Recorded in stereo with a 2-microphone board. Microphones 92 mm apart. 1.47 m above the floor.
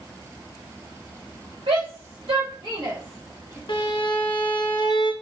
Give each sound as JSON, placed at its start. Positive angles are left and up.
{"t": 1.7, "sound": "a shout", "side_deg": -75, "distance_m": 1.0}
{"t": 3.7, "sound": "a violin", "side_deg": 60, "distance_m": 0.5}